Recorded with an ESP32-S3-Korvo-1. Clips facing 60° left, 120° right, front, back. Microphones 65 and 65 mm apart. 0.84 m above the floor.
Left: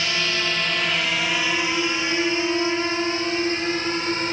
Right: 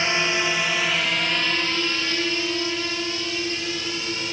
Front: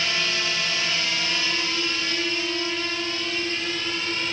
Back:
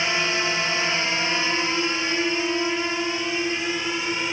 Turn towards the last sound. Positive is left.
turn(degrees=110)